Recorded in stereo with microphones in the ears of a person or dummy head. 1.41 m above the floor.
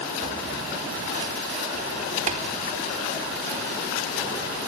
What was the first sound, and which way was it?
Tapping, 35° right (ahead or behind).